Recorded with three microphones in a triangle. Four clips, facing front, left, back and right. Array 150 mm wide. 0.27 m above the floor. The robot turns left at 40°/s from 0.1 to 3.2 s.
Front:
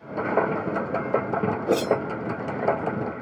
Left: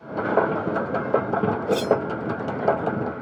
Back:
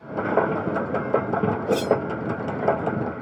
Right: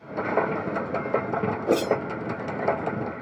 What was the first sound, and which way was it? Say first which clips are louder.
A whoosh: even, even; 100° right.